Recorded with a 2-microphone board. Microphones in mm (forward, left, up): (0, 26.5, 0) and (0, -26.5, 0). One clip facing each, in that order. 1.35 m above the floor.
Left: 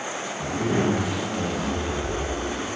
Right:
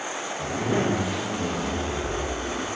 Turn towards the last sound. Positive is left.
turn(degrees=-15)  # may be behind; listen again after turning